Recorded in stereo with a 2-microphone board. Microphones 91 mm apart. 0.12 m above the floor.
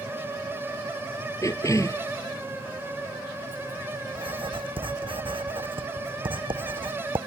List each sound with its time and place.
1.4 s a cough: 35° left (ahead or behind)
4.2 s writing: 70° right (ahead or behind)